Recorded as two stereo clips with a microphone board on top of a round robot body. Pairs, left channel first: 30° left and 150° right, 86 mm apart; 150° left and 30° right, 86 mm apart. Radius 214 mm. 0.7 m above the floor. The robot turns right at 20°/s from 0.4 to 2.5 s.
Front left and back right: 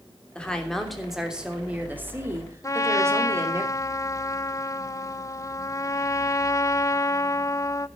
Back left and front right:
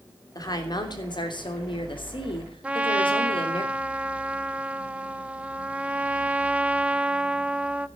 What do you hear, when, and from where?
0.3 s a woman speaking: 110° left, 3 m; by 3.6 s 150° left, 3 m
2.6 s a trumpet: 35° left, 0.9 m